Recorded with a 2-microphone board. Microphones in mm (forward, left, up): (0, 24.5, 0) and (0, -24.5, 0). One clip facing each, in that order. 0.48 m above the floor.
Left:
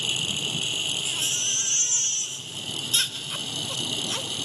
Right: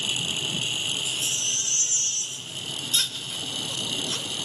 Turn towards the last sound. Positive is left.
turn(degrees=40)  # may be behind; listen again after turning